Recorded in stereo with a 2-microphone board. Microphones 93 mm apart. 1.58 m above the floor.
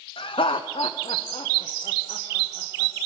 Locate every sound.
0.2 s laughter: 65° left (ahead or behind), 0.5 m; by 2.9 s 90° left, 2.5 m